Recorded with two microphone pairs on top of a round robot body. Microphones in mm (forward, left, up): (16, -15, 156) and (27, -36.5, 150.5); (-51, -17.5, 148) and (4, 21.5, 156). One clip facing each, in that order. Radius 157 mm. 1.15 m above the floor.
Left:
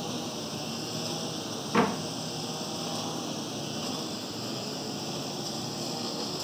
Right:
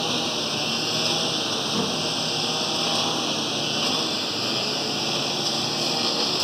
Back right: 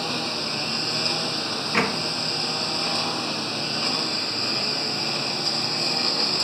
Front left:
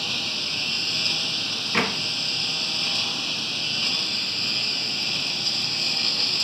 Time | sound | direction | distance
0.0 | a lawn mower | 85° right | ?
1.7 | a door slam | 130° left | ?